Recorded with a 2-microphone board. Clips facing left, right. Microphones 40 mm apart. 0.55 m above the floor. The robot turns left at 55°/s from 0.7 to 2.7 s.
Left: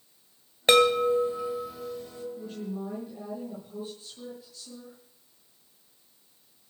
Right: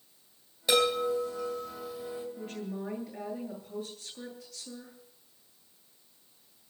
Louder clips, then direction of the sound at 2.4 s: Left 2 dB; 55° right (ahead or behind).